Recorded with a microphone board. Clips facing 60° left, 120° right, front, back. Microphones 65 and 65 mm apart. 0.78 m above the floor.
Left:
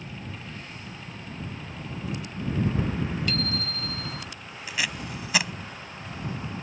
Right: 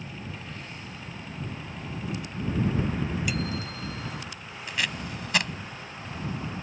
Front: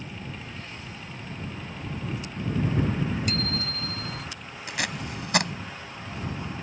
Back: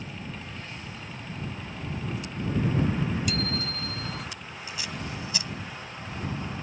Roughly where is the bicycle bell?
Ahead right.